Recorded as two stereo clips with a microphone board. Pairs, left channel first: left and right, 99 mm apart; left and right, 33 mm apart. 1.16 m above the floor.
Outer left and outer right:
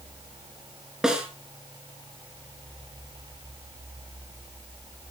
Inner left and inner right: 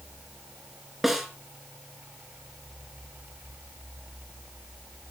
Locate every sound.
1.0 s a snare drum: 5° right (ahead or behind), 3.5 m